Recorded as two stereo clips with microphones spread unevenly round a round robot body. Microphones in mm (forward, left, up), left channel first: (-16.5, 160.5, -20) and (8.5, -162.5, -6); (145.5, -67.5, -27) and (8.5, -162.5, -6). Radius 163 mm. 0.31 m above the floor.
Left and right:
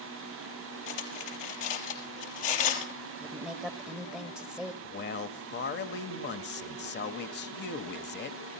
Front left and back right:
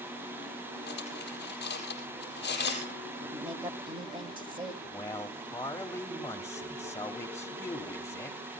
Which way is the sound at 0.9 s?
95° left.